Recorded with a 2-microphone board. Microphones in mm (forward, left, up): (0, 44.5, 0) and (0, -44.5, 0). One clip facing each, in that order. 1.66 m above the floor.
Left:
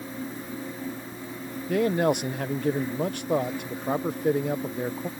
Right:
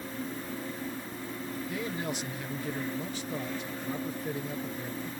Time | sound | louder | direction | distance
1.7 | a man speaking | left 15 dB | 70° left (ahead or behind) | ?